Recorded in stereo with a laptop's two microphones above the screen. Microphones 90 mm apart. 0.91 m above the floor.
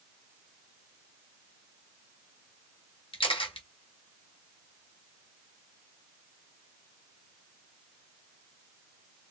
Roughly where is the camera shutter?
Left.